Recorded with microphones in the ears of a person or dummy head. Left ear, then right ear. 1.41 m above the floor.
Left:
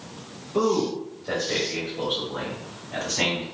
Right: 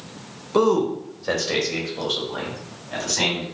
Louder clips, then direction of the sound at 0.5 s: Right 4 dB; 60° right (ahead or behind).